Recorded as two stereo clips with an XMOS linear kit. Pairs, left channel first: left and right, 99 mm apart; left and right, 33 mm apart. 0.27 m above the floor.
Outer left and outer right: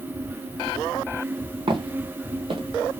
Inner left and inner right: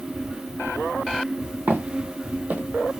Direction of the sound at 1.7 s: 65° right (ahead or behind).